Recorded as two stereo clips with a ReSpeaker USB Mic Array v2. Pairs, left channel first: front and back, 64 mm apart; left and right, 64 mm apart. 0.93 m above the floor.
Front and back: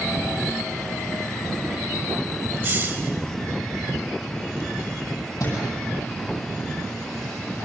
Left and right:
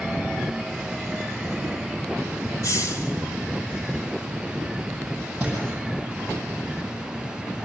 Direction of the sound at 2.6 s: 120° left.